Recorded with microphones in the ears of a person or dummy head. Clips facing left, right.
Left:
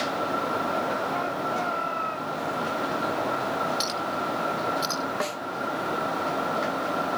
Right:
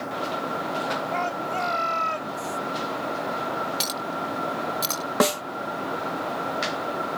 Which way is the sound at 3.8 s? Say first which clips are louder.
Left 1 dB; 45° right (ahead or behind).